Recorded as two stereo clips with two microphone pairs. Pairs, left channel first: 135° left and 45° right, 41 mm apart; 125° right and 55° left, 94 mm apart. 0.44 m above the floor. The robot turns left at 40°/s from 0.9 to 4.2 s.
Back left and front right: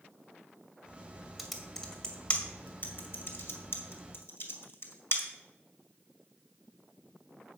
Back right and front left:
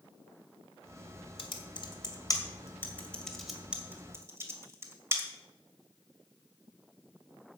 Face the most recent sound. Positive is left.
turn(degrees=115)